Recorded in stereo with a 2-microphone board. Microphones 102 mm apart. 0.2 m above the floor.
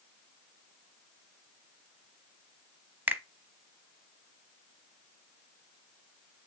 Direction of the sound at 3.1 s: 20° right (ahead or behind).